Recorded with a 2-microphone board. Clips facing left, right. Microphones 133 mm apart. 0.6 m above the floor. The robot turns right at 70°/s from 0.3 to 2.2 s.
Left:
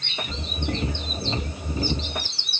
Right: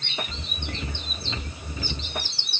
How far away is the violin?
I don't hear a violin.